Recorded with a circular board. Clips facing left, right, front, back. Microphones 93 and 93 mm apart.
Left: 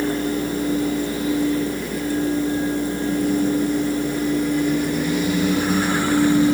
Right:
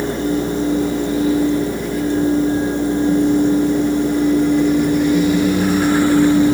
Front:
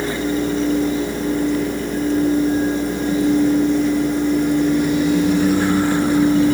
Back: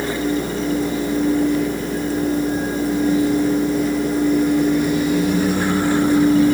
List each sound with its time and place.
Only background noise.